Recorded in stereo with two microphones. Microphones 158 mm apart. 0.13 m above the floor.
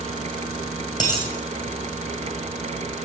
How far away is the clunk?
No clunk in this recording.